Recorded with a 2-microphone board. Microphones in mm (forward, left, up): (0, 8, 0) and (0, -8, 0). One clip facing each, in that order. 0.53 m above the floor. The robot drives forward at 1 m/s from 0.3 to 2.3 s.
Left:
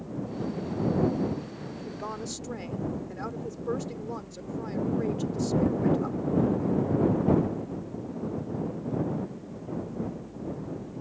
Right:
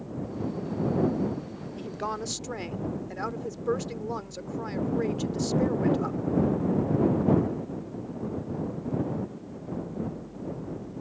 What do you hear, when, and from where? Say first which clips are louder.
1.8 s a woman speaking: right 5 dB; 30° right (ahead or behind); by 6.2 s 20° right (ahead or behind)